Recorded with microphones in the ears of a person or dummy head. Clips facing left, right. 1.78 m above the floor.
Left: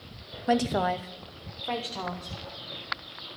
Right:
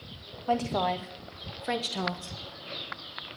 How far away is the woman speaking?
About 0.8 m.